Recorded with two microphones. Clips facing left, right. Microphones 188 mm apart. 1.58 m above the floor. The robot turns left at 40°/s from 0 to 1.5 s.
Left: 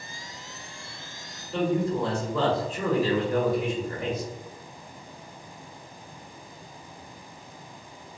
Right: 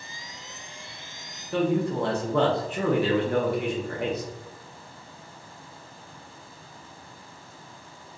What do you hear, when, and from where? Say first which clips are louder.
1.5 s a man speaking: right 1 dB; 65° right (ahead or behind), 0.8 m